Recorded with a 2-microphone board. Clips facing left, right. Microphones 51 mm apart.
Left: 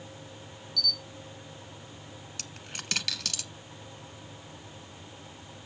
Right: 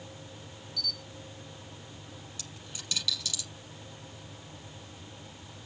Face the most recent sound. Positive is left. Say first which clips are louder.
# left 3 dB
turn(degrees=60)  # may be behind; listen again after turning